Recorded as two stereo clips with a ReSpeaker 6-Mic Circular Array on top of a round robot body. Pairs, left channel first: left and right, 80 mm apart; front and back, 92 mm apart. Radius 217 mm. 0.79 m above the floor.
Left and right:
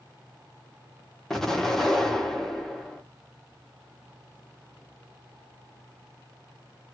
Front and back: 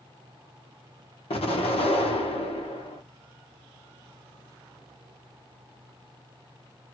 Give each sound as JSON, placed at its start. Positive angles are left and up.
{"t": 1.3, "sound": "an explosion", "azimuth_deg": 5, "distance_m": 1.1}